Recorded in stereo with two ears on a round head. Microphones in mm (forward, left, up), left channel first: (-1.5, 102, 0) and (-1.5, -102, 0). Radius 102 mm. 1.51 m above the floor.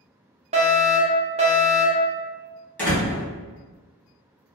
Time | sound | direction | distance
0.5 | a fire alarm | 30° right (ahead or behind) | 0.6 m
2.8 | a door slam | 10° left (ahead or behind) | 1.1 m